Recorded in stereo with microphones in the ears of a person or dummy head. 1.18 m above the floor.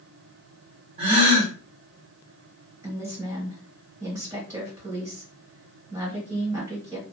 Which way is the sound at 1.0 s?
35° right (ahead or behind).